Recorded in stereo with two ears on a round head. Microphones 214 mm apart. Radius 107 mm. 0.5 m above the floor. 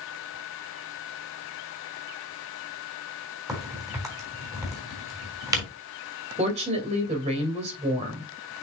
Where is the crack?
15° right (ahead or behind), 4 m.